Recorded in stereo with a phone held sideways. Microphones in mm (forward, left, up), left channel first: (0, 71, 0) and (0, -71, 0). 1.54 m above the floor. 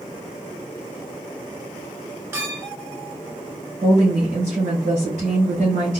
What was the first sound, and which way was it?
A clink, 20° right (ahead or behind).